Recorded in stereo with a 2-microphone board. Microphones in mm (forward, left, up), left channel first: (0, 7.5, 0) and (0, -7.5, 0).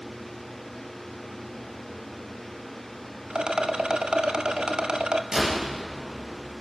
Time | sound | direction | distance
3.3 | a rattle | 65° right (ahead or behind) | 1.2 m
5.3 | a door slam | 45° right (ahead or behind) | 9 m